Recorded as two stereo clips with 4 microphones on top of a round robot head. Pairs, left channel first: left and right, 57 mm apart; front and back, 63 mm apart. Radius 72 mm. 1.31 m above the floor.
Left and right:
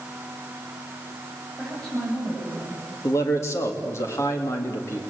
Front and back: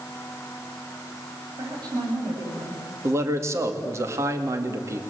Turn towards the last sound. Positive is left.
turn(degrees=135)